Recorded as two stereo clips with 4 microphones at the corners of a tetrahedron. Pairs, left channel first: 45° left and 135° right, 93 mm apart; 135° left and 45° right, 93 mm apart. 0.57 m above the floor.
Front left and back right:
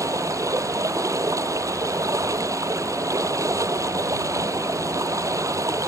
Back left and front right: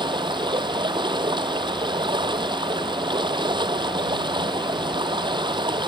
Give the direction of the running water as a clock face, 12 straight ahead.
3 o'clock.